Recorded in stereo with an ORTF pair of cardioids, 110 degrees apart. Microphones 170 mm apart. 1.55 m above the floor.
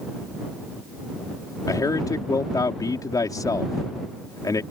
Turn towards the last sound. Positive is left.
turn(degrees=20)